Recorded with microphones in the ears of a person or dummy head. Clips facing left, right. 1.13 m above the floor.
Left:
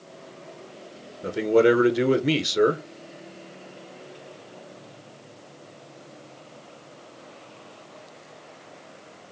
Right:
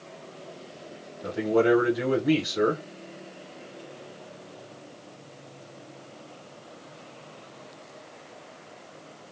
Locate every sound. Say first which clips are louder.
1.2 s a man speaking: left 4 dB; 35° left (ahead or behind), 0.9 m